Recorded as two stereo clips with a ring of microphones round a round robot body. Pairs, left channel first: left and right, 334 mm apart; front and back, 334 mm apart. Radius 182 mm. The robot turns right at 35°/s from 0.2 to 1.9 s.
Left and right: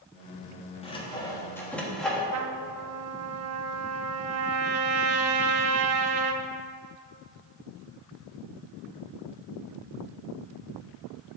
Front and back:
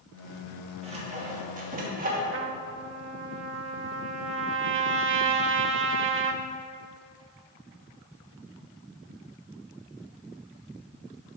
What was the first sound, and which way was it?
Sawing, 135° left.